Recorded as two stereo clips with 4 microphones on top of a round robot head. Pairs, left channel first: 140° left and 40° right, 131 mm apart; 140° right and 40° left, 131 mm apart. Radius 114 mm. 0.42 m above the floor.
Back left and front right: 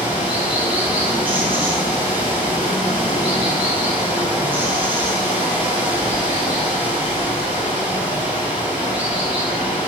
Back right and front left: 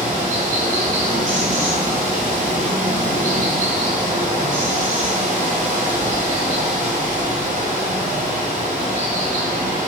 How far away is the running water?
About 2.5 m.